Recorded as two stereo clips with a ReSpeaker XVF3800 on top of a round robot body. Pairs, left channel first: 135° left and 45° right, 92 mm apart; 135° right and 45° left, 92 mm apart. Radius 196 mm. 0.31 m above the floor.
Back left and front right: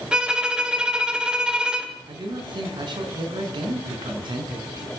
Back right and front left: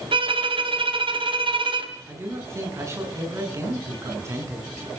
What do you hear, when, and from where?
0.1 s a violin: 35° left, 2.5 m
2.1 s a man speaking: 10° right, 6.5 m